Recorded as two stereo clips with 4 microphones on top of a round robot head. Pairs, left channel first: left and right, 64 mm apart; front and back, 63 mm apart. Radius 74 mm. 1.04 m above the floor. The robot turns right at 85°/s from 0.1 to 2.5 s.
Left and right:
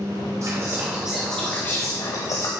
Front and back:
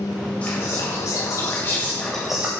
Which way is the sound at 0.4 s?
65° right.